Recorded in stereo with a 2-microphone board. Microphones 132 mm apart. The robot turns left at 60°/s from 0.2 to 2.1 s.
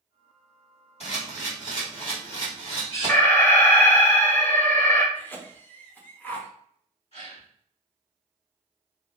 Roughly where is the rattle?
I don't hear a rattle.